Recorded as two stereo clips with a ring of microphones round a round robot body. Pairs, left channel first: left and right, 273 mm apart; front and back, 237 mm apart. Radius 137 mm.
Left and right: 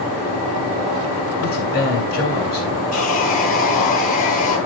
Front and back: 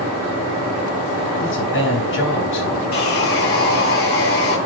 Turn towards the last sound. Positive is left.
turn(degrees=30)